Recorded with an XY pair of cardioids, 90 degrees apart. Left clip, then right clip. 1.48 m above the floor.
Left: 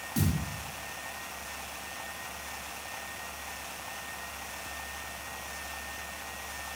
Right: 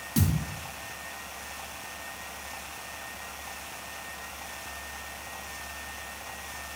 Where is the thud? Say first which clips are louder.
Right 3 dB; 40° right, 2.5 m.